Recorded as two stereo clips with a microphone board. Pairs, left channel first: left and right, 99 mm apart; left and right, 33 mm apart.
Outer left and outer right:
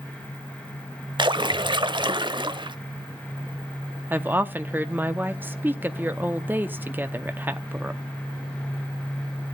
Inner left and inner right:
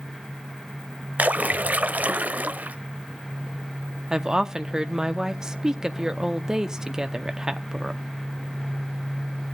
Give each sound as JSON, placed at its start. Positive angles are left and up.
{"t": 1.2, "sound": "a splash", "side_deg": -50, "distance_m": 0.5}
{"t": 4.1, "sound": "a woman speaking", "side_deg": -20, "distance_m": 0.7}